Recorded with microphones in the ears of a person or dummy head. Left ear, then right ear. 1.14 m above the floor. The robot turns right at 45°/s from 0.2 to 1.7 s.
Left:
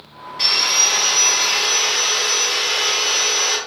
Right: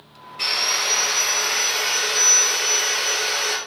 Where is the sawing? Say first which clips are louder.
Left 5 dB; 160° right, 1.4 m; by 3.6 s 100° right, 1.4 m.